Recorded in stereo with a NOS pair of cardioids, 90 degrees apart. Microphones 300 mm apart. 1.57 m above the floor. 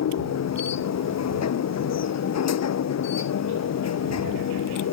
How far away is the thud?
I don't hear a thud.